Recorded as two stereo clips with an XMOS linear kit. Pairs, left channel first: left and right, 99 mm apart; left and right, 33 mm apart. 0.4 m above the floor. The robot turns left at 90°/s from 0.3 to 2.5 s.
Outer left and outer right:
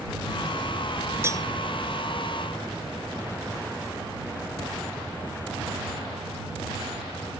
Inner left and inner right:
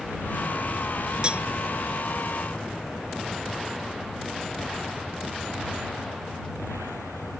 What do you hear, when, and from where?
1.2 s cutlery clinking: 25° right (ahead or behind); by 1.4 s 45° right (ahead or behind)